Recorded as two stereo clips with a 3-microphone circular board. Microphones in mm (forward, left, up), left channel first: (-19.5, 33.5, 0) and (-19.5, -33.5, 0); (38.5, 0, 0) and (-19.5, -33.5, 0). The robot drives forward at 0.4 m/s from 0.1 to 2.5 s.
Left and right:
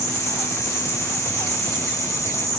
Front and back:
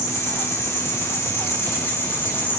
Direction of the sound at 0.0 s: 60° left.